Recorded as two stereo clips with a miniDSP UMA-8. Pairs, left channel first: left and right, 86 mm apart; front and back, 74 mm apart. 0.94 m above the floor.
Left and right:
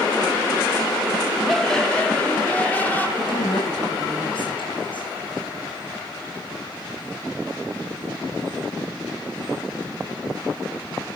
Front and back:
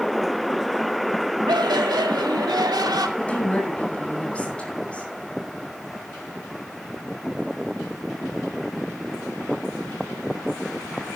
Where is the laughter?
175° left, 1.8 m; by 3.1 s 160° left, 3.5 m.